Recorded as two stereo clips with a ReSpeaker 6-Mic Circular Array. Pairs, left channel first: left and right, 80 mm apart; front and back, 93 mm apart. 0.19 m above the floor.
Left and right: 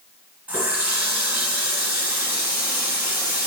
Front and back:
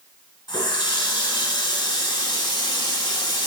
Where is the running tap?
20° right, 1.2 m.